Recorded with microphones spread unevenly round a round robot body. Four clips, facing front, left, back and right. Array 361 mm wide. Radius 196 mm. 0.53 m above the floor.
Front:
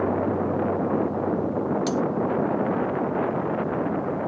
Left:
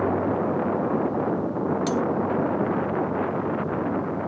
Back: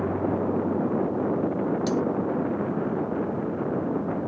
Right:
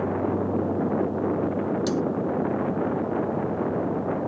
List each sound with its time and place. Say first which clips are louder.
1.9 s cutlery clinking: left 1 dB, even; 35° right, 0.6 m